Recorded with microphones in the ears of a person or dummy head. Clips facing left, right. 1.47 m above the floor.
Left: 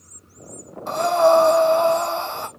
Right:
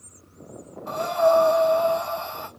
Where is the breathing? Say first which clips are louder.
Left 4 dB; 55° left (ahead or behind), 0.6 m.